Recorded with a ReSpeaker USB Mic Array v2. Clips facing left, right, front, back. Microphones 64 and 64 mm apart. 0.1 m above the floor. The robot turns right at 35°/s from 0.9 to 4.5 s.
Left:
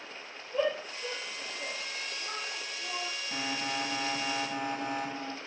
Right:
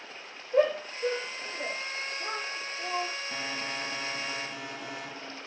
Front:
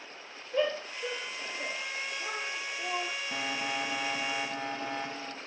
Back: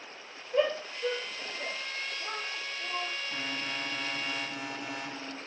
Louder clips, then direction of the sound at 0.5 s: Right 6 dB, back 2 dB; 100° right.